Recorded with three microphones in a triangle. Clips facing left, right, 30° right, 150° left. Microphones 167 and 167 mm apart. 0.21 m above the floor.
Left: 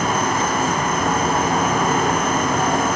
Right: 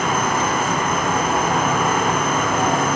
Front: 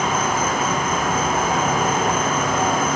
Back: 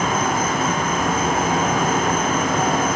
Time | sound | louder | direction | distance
0.0 | an insect | even, back 1 dB | 125° left | 1.4 m